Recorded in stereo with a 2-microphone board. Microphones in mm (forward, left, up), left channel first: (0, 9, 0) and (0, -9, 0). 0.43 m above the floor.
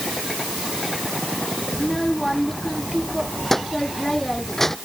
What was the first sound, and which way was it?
A child speaking, 20° left (ahead or behind).